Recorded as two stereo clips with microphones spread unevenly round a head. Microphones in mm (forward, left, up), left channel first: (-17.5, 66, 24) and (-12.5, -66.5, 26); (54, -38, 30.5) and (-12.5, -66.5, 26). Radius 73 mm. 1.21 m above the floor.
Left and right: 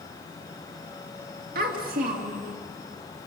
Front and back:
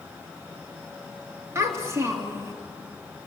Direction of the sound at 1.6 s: 105° right.